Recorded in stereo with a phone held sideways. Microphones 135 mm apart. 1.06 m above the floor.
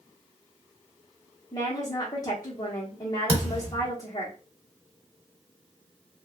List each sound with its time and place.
1.5 s a woman speaking: 30° left (ahead or behind), 0.7 m
3.3 s a thud: 25° right (ahead or behind), 1.2 m